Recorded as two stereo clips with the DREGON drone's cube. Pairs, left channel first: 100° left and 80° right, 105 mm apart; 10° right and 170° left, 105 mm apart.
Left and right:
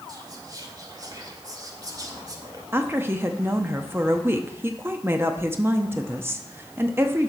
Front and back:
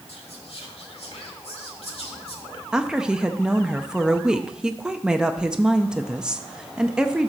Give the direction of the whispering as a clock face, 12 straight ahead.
1 o'clock.